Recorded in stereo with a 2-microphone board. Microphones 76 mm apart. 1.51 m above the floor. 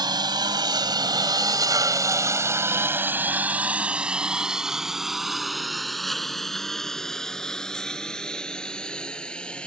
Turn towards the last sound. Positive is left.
turn(degrees=15)  # may be behind; listen again after turning